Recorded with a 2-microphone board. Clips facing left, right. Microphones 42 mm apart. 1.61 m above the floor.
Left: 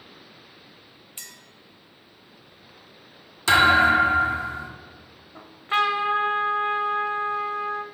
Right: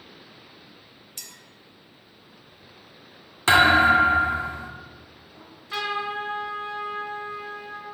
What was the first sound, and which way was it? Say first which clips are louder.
A clink: left 1 dB; 25° left (ahead or behind).